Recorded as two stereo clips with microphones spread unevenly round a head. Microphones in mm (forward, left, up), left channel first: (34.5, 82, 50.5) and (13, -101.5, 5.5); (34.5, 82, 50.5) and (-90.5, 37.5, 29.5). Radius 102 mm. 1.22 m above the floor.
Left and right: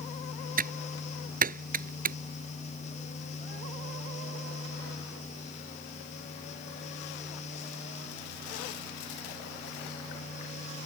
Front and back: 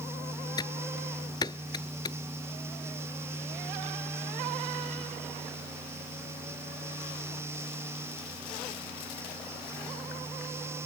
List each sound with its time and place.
0.6 s typing on a keyboard: 50° right